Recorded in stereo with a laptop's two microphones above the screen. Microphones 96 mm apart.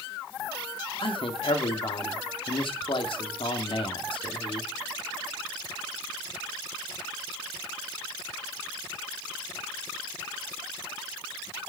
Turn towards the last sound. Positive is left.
turn(degrees=60)  # may be behind; listen again after turning